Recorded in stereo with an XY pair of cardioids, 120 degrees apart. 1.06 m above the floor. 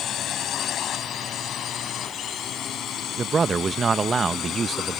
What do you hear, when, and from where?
0.0 s a drone: 55° left
3.2 s a man speaking: 30° right